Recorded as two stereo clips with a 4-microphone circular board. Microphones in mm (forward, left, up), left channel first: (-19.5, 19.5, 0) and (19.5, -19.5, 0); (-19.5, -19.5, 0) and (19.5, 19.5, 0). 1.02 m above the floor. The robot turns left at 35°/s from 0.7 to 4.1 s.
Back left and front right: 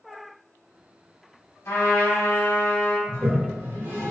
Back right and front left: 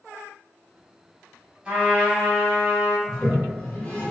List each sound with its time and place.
1.6 s a trumpet: 115° left, 1.6 m; by 3.0 s 70° left, 1.6 m
3.1 s a toilet flushing: 50° right, 1.0 m; by 4.1 s 85° right, 1.0 m